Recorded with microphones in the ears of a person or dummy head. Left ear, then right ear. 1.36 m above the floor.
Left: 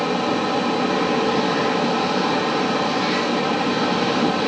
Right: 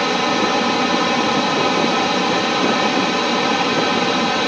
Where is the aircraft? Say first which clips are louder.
Right 4 dB; 65° right (ahead or behind).